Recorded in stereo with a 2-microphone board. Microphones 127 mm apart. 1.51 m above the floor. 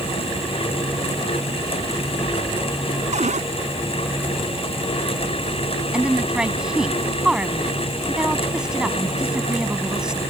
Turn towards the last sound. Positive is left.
turn(degrees=-5)  # may be behind; listen again after turning